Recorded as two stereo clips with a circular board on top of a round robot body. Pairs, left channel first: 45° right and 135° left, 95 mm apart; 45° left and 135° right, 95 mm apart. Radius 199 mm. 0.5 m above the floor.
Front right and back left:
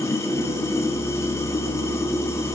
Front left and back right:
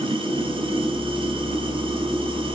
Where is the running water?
105° right, 4 m.